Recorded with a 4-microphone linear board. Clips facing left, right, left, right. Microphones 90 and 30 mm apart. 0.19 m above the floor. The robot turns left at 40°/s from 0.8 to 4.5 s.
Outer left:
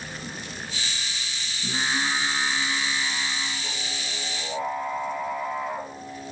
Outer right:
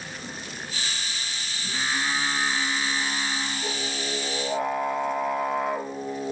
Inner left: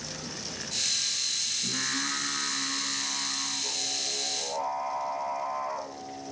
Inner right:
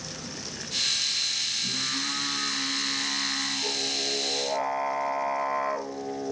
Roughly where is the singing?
Ahead left.